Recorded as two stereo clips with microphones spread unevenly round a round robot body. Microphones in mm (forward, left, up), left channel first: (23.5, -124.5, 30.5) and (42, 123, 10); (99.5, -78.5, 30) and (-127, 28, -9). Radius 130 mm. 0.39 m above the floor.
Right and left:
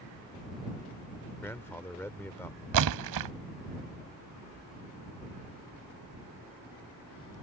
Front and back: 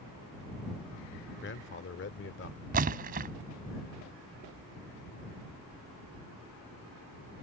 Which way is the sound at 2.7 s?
95° left.